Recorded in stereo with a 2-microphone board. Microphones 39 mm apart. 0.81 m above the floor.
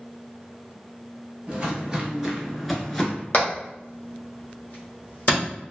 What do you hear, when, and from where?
1.5 s footsteps: 30° right (ahead or behind), 1.1 m; by 3.2 s 20° left (ahead or behind), 0.8 m
3.3 s hammering: 45° left (ahead or behind), 1.1 m